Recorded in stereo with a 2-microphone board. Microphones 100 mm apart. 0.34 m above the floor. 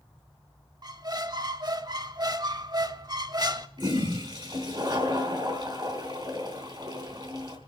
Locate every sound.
0.8 s a squeak: 45° right (ahead or behind), 0.6 m
3.8 s a toilet flushing: 45° right (ahead or behind), 3 m